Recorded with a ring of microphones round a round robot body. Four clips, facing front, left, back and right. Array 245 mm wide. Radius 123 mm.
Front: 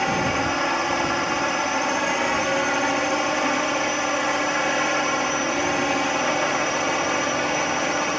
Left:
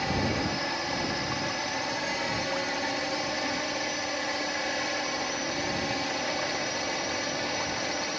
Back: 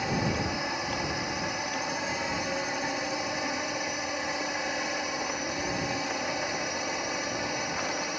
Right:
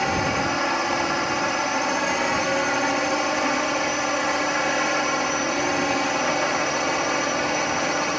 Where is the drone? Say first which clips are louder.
Right 6 dB, front 7 dB; 40° right.